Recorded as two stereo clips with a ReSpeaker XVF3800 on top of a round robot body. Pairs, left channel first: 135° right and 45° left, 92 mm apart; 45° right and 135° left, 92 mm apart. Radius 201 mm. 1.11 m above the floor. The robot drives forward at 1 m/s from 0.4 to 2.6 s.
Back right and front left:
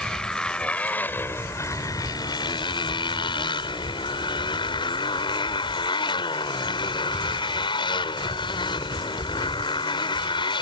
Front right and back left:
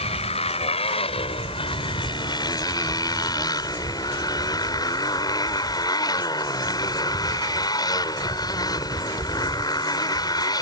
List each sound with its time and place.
0.0 s a motorcycle: 50° right; by 10.6 s 95° right